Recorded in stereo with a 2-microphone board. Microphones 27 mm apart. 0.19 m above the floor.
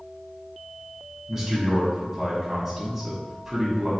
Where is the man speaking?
15° right (ahead or behind), 1.0 m.